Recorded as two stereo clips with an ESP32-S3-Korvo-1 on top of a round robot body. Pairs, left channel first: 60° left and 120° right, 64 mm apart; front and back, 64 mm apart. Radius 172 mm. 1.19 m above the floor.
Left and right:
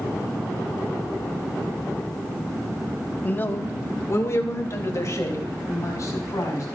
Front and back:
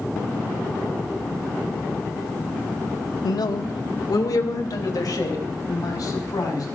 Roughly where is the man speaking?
Ahead.